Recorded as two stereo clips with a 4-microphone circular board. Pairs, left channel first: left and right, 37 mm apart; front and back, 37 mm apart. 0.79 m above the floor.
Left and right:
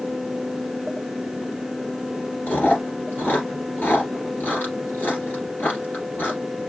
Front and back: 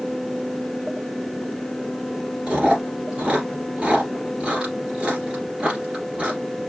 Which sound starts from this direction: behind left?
Chewing, at 2.5 s.